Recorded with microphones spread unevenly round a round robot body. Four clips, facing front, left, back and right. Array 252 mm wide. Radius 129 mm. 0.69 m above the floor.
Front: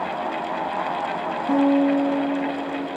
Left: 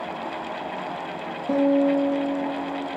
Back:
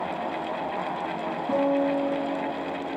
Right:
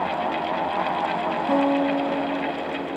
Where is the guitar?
55° right, 9 m.